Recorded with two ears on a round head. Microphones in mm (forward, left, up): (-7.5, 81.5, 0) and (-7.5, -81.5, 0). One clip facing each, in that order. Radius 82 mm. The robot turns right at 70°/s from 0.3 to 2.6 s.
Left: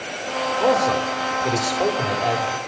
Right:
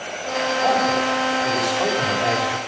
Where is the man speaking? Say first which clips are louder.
Left 2 dB; 70° left, 3 m; by 2.6 s 150° right, 3 m.